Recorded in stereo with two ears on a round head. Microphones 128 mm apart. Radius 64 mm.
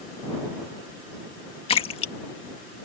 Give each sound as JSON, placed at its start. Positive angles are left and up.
{"t": 1.7, "sound": "a splash", "side_deg": 40}